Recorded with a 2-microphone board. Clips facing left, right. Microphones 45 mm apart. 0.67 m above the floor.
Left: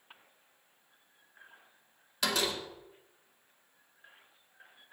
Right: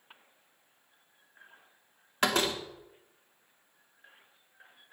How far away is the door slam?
About 0.7 m.